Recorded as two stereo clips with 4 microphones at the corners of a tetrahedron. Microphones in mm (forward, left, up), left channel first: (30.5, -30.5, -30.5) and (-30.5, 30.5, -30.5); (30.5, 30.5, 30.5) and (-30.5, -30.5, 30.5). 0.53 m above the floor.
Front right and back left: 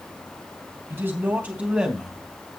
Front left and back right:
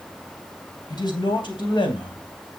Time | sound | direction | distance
0.9 | a man speaking | 75° left | 3 m